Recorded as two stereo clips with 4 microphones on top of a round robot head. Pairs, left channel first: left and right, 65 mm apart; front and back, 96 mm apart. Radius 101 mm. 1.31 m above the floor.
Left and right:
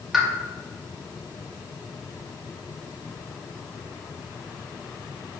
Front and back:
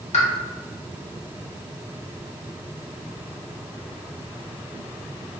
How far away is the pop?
About 1.7 m.